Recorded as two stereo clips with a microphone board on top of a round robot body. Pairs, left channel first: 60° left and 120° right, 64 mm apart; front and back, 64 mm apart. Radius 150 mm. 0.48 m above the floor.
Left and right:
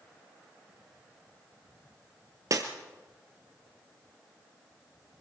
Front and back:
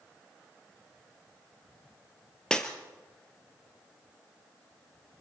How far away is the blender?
I don't hear a blender.